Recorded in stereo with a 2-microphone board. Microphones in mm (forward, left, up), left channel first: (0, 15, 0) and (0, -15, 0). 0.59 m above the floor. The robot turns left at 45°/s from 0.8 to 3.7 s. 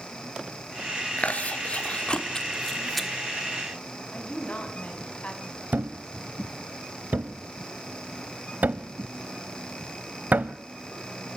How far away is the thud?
About 0.7 m.